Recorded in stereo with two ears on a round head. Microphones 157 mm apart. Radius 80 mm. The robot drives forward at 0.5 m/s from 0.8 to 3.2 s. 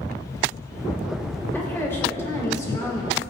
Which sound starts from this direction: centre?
A woman speaking, at 1.5 s.